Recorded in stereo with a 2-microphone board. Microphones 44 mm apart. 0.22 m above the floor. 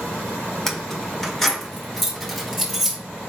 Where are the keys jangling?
10° left (ahead or behind), 1.5 m; by 3.0 s centre (ahead or behind), 4.5 m.